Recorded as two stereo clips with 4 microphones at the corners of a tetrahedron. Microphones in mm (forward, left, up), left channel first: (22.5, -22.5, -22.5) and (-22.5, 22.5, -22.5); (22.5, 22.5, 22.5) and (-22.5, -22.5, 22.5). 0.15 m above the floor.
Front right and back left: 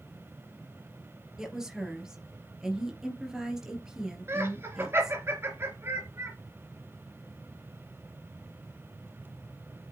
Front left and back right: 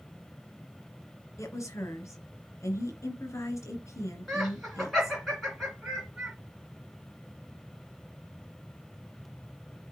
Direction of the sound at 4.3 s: 130° left.